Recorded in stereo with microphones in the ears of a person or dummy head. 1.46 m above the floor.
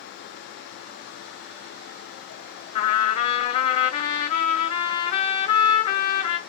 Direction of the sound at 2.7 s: 30° left (ahead or behind).